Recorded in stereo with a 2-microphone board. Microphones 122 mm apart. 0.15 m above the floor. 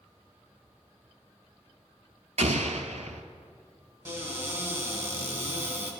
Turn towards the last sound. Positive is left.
turn(degrees=-20)  # may be behind; listen again after turning